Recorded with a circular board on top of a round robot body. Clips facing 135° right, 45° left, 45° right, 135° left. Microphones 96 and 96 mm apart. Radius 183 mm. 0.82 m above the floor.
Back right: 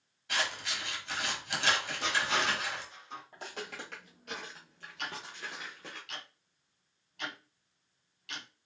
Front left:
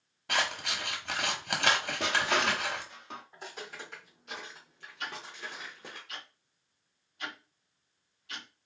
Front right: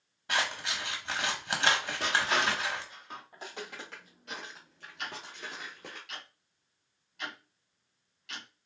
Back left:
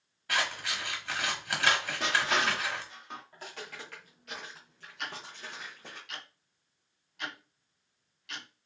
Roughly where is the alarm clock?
I don't hear an alarm clock.